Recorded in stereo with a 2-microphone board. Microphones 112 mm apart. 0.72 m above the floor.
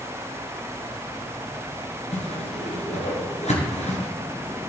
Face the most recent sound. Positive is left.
turn(degrees=80)